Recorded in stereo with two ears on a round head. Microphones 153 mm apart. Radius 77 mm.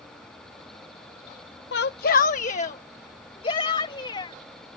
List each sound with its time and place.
1.7 s a shout: 75° left (ahead or behind); by 4.4 s 30° left (ahead or behind)